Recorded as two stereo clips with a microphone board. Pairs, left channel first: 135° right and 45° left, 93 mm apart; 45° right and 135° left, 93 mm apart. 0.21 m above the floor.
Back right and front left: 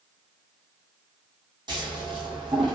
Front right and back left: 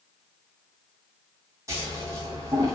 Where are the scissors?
80° left, 1.6 m.